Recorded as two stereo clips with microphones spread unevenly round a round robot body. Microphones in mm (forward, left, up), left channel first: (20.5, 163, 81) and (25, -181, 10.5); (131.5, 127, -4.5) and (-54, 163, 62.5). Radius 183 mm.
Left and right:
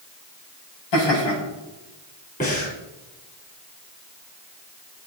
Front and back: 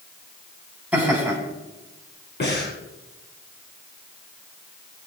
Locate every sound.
0.9 s laughter: 85° left, 8 m
2.4 s breathing: 25° left, 6 m